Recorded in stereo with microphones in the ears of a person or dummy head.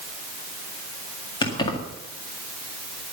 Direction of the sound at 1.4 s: 30° left (ahead or behind).